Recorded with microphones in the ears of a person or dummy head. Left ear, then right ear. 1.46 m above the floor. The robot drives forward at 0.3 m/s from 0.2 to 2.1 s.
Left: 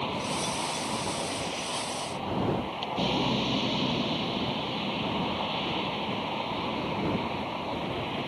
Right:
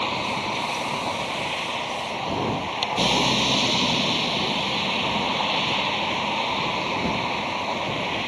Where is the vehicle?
35° right (ahead or behind).